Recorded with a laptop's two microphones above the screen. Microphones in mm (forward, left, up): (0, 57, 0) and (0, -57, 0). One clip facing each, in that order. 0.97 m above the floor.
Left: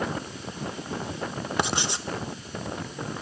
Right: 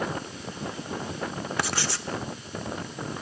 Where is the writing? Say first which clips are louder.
Left 4 dB; 20° left (ahead or behind), 1.0 m.